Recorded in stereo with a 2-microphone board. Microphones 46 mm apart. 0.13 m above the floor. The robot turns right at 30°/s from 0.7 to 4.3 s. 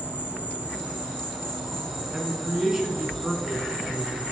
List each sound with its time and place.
0.0 s an insect: 145° right, 1.8 m; by 4.3 s 40° right, 1.8 m
2.1 s a man speaking: 20° right (ahead or behind), 1.1 m; by 4.2 s 5° left (ahead or behind), 1.1 m